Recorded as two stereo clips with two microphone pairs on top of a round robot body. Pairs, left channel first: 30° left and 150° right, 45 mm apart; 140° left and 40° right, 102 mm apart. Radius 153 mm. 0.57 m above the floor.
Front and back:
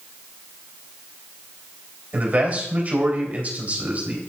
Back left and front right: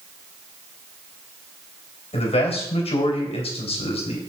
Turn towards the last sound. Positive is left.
turn(degrees=150)